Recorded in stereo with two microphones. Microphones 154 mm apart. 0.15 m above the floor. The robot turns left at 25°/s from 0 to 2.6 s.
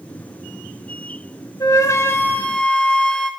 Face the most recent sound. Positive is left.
turn(degrees=5)  # may be behind; listen again after turning